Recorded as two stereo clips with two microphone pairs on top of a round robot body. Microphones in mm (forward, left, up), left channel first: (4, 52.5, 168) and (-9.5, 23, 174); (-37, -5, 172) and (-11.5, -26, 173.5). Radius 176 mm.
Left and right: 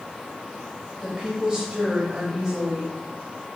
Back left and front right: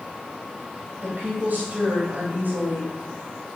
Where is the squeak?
No squeak in this recording.